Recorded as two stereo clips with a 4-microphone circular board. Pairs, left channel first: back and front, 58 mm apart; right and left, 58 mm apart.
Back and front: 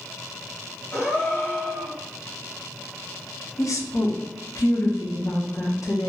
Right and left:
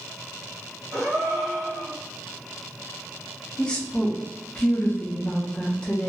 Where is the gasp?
110° left, 1.5 m.